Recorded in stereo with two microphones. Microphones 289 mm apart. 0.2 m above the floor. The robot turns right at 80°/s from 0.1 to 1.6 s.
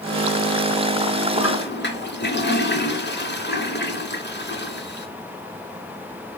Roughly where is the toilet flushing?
Left.